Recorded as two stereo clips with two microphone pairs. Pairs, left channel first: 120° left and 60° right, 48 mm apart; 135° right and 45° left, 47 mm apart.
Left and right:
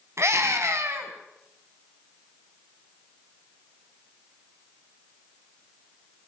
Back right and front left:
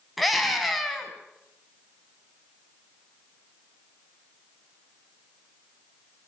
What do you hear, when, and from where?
0.2 s a scream: 40° right, 5 m